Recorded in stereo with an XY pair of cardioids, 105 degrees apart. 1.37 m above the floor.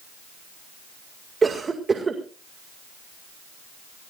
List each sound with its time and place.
1.4 s a cough: 30° right, 2 m